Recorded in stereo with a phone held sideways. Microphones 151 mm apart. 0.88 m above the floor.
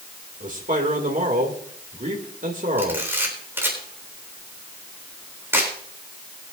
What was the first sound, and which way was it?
A man speaking, 55° right (ahead or behind).